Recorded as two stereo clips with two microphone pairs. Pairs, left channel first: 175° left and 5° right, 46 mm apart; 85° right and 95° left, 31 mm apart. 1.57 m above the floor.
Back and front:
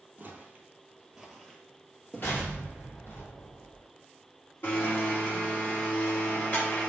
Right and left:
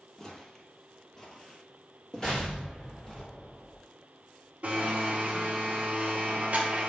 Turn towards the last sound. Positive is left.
turn(degrees=135)